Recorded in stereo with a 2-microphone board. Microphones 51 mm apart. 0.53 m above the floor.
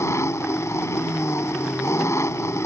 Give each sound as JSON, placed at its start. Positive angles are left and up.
{"t": 0.0, "sound": "an engine running", "side_deg": 80}